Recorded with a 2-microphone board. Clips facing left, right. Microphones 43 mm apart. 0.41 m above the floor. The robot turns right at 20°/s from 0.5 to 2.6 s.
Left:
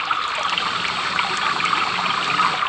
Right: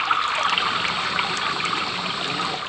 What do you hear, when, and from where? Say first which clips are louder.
0.0 s running water: right 1 dB; 5° right; by 2.7 s 40° left